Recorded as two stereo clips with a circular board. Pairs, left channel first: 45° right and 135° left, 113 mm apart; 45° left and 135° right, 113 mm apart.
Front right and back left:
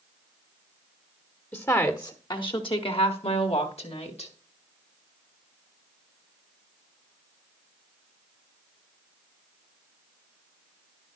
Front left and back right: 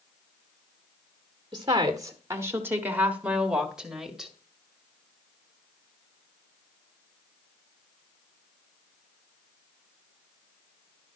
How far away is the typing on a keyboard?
I don't hear typing on a keyboard.